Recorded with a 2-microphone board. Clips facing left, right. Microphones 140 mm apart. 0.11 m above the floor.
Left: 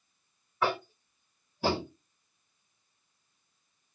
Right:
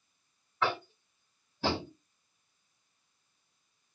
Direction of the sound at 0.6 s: 10° left (ahead or behind).